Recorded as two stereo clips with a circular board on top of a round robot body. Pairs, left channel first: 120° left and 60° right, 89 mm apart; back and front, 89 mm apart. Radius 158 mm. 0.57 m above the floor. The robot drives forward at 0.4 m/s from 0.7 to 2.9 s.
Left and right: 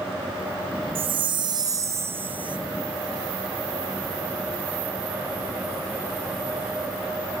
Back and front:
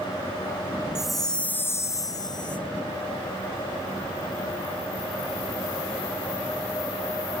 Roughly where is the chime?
Right.